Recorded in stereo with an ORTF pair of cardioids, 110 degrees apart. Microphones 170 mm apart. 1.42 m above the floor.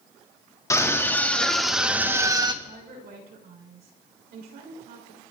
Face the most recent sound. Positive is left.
turn(degrees=-65)